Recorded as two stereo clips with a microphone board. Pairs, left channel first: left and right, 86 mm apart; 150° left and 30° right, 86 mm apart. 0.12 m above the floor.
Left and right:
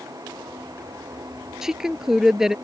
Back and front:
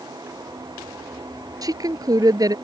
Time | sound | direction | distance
1.6 | a woman speaking | 5° right | ?